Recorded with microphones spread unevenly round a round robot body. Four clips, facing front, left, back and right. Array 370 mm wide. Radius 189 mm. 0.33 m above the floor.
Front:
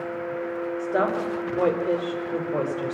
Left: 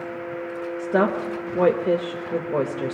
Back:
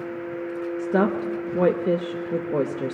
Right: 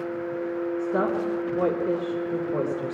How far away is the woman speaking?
About 0.9 m.